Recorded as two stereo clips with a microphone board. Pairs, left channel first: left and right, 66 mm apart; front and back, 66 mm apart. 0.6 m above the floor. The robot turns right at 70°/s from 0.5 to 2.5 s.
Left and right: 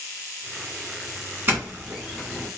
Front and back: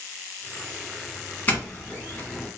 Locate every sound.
1.5 s a doorbell: 50° right, 1.3 m; by 2.5 s 20° left, 1.3 m